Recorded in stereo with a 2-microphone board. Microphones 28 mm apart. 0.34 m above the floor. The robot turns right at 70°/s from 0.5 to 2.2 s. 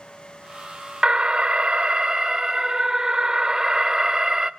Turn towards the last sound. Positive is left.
turn(degrees=-45)